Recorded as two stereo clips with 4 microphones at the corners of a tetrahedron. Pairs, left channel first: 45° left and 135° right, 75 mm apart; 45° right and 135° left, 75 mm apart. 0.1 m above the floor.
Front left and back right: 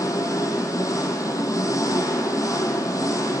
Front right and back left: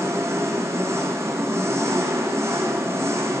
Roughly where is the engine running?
Left.